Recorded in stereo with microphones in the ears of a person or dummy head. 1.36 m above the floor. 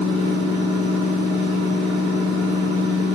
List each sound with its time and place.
0.0 s a machine running: 40° right (ahead or behind), 2.0 m